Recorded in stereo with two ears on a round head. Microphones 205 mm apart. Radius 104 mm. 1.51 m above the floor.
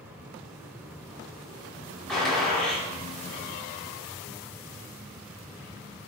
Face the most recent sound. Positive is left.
turn(degrees=5)  # may be behind; listen again after turning